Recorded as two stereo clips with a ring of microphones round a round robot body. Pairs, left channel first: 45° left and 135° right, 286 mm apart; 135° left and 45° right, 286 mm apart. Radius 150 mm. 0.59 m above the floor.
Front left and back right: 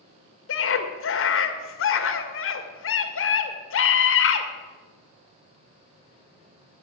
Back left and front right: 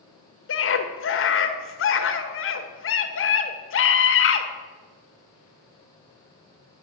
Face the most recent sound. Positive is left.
turn(degrees=90)